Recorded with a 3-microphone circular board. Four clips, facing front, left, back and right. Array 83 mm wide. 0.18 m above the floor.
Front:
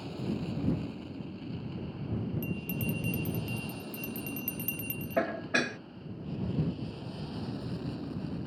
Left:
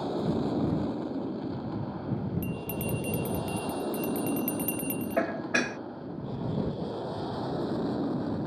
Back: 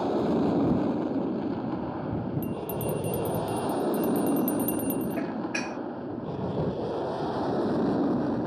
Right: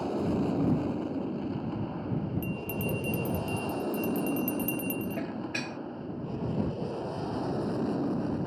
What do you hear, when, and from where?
0.0 s an aircraft: straight behind
2.4 s a bell: 85° left
5.2 s dishes clattering: 55° left